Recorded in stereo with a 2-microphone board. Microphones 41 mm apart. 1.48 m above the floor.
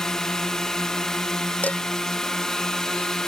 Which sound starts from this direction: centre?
A drone, at 0.0 s.